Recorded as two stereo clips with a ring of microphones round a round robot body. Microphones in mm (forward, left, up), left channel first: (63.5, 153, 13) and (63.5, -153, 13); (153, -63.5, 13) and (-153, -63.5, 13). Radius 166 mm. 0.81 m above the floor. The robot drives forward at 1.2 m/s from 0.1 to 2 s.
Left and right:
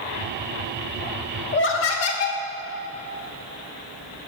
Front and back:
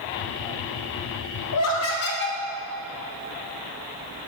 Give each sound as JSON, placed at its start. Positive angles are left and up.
{"t": 1.5, "sound": "laughter", "azimuth_deg": 35, "distance_m": 1.5}